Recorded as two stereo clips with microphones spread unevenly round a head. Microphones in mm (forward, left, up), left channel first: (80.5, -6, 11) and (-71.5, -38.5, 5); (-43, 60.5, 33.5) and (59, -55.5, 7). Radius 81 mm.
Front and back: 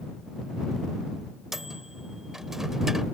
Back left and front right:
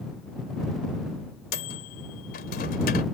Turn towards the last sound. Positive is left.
turn(degrees=105)